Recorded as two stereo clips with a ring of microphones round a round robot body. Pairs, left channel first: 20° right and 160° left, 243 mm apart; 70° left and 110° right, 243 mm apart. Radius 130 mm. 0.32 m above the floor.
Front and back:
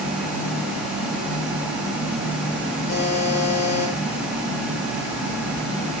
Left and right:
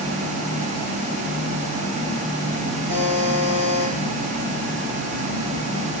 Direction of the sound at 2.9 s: 65° right.